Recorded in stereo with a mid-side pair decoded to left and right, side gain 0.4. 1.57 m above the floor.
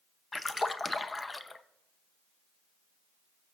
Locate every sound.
0.3 s a splash: 25° left, 0.7 m